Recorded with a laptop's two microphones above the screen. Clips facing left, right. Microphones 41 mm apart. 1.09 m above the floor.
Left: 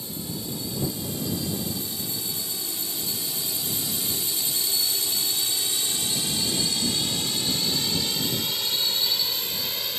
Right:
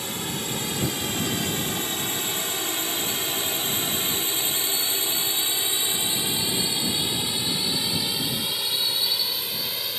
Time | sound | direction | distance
0.0 | a drone | 75° right (ahead or behind) | ?